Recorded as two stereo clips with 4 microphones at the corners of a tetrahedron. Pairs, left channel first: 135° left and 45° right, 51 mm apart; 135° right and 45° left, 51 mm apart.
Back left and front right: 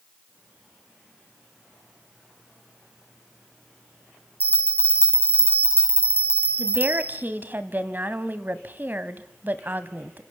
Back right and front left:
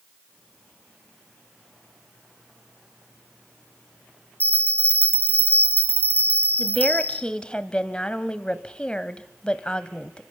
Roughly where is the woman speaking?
Right.